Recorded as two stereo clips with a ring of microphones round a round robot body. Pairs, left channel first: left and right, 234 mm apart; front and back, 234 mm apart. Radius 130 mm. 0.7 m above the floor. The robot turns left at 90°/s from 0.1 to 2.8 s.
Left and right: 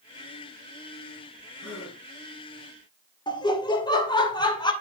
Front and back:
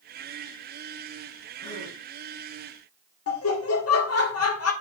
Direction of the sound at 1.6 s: 75° left.